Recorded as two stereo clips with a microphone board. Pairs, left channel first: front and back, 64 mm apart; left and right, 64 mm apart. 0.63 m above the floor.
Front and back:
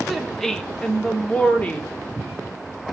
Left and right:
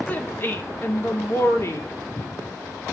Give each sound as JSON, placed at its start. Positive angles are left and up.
{"t": 0.1, "sound": "a woman speaking", "azimuth_deg": 90, "distance_m": 1.2}